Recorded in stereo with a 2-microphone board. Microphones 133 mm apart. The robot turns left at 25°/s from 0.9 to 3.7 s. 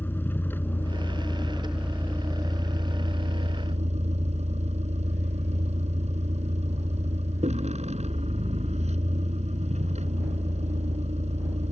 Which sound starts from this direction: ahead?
A vehicle, at 0.0 s.